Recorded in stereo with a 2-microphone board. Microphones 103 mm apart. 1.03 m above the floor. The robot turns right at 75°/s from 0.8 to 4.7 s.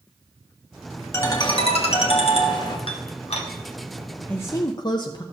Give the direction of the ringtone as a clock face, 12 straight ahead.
11 o'clock.